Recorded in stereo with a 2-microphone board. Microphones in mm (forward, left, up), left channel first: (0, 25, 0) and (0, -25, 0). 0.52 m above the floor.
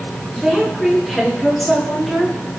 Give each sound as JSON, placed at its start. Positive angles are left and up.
{"t": 0.4, "sound": "a woman speaking", "side_deg": 0, "distance_m": 6.0}